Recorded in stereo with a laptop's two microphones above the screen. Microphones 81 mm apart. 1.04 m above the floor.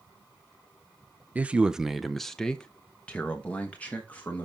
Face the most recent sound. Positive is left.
turn(degrees=20)  # may be behind; listen again after turning